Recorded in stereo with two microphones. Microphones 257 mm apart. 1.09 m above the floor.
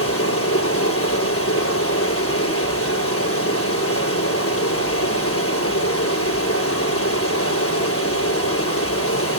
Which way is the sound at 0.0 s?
65° left (ahead or behind).